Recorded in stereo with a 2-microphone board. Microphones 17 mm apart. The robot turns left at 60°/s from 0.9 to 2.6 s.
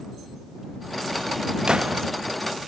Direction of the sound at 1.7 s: 50° right (ahead or behind).